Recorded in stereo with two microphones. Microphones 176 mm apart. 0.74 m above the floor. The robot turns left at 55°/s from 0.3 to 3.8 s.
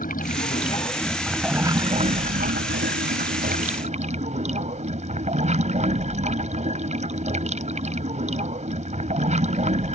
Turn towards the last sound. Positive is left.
turn(degrees=-135)